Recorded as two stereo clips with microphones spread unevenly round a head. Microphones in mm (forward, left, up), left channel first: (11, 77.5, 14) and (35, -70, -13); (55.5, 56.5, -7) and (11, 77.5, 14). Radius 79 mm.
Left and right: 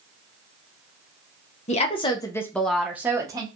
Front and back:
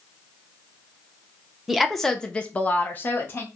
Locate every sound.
1.7 s a woman speaking: 55° left, 0.9 m; by 3.5 s 25° right, 1.1 m